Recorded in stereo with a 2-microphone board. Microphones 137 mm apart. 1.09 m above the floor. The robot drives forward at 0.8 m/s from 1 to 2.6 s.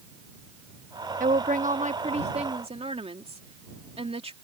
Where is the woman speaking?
70° right (ahead or behind); by 4.3 s 45° right (ahead or behind).